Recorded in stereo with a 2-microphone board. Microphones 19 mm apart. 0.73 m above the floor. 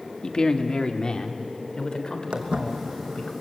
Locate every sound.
0.2 s a man speaking: 50° left (ahead or behind), 1.5 m; by 3.3 s 45° left (ahead or behind), 5 m
2.3 s footsteps: 70° right (ahead or behind), 2.5 m